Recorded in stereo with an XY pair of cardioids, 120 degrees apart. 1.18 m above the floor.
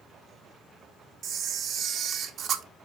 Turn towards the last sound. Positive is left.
turn(degrees=-60)